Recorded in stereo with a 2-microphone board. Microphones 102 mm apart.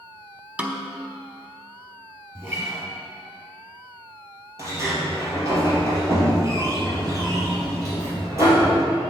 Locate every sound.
0.6 s a snare drum: 15° right (ahead or behind), 0.8 m
2.4 s a guitar: 35° right (ahead or behind), 3 m
4.6 s a sliding door: 30° right (ahead or behind), 3 m